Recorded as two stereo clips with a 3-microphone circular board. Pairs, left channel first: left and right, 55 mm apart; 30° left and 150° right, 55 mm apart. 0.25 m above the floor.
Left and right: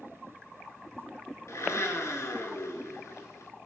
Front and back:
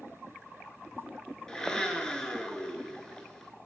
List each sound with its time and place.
1.5 s a blender: 105° left, 0.8 m